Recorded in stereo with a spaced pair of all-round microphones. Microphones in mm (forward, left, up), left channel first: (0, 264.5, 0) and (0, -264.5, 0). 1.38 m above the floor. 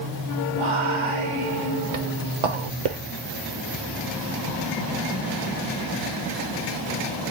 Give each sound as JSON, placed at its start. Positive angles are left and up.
{"t": 0.5, "sound": "whispering", "side_deg": -80, "distance_m": 0.6}